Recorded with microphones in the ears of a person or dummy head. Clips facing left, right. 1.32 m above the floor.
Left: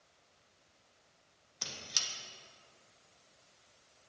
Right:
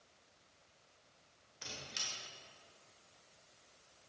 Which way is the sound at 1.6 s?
75° left (ahead or behind).